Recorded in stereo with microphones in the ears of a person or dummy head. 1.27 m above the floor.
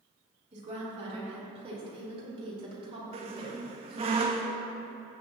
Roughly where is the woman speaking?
Right.